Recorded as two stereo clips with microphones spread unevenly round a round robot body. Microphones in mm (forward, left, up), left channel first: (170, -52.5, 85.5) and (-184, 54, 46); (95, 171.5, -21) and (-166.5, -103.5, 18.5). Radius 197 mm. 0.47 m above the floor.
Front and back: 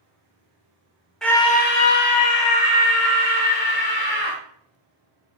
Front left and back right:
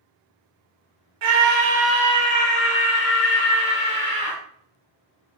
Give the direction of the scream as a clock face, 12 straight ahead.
4 o'clock.